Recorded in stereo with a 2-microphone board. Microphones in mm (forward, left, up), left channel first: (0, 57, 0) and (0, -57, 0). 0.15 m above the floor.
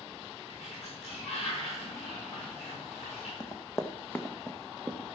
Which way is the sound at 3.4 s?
35° left (ahead or behind).